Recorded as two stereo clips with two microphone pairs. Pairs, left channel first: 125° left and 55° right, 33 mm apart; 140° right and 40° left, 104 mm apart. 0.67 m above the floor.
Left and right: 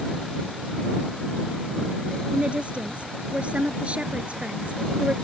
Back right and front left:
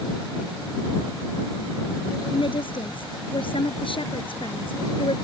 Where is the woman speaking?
110° right.